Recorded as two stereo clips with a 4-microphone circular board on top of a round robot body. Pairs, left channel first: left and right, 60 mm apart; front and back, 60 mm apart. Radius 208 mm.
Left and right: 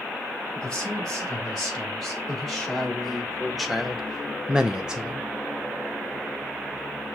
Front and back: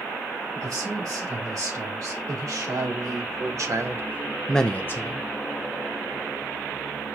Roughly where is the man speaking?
Behind.